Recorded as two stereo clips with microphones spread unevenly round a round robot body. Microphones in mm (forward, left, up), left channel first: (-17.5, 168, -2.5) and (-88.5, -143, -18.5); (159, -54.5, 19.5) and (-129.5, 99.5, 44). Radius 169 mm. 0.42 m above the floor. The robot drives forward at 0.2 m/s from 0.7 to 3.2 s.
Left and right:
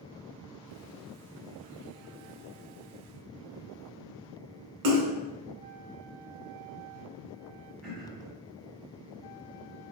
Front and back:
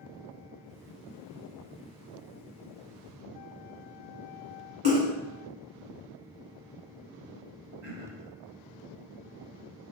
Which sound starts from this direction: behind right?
A splash, at 4.8 s.